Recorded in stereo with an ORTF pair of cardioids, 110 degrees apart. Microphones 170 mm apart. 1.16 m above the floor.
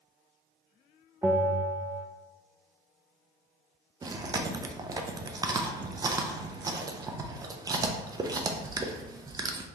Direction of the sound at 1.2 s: 15° right.